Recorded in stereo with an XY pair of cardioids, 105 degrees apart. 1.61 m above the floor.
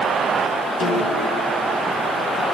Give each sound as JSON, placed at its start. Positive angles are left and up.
{"t": 0.8, "sound": "a snare drum", "azimuth_deg": 60, "distance_m": 6.5}